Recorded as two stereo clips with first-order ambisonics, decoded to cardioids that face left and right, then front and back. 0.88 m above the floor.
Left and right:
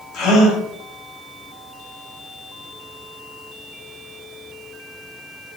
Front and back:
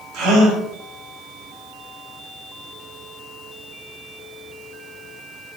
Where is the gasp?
140° left, 5 m.